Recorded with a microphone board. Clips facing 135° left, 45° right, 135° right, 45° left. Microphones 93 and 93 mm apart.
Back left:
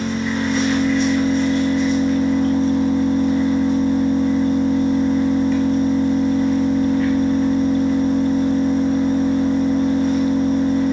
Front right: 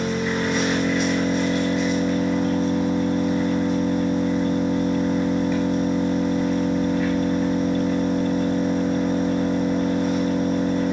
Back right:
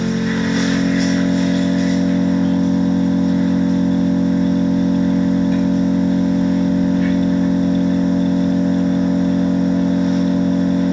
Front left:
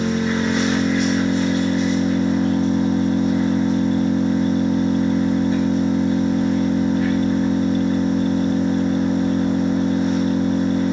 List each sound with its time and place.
0.0 s an engine running: 130° right, 1.5 m